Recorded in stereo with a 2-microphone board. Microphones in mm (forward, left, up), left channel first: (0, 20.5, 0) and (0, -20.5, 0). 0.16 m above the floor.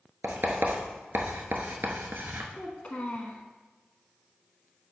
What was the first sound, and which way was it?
Writing, 65° right (ahead or behind).